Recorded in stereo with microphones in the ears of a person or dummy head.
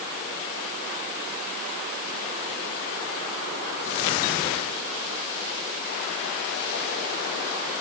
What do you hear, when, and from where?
Only background noise.